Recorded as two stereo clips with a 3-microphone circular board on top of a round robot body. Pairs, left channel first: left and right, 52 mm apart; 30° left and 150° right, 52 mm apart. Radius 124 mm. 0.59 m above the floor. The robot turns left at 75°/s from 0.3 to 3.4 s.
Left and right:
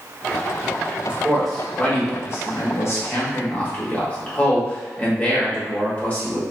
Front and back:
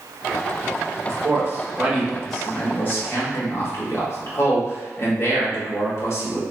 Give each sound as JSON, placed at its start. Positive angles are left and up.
{"t": 1.1, "sound": "a man speaking", "azimuth_deg": -150, "distance_m": 1.4}